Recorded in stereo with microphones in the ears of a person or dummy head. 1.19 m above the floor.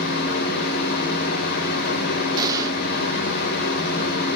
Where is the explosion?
25° right (ahead or behind), 1.4 m.